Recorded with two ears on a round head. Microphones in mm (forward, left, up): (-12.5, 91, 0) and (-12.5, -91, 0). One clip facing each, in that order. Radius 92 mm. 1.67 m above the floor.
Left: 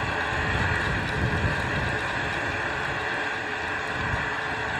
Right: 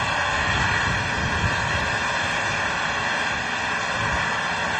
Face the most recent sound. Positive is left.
turn(degrees=-55)  # may be behind; listen again after turning